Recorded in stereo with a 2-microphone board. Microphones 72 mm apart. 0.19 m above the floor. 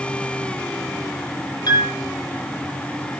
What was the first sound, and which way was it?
A piano, 65° left (ahead or behind).